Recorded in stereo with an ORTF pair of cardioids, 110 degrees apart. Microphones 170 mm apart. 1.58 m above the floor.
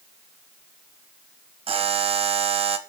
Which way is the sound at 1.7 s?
35° right.